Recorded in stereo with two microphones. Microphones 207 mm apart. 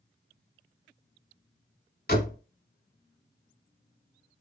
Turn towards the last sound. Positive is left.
turn(degrees=55)  # may be behind; listen again after turning